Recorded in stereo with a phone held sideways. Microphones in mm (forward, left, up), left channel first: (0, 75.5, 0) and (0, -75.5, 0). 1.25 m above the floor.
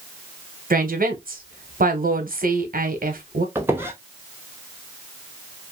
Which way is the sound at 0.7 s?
75° right (ahead or behind).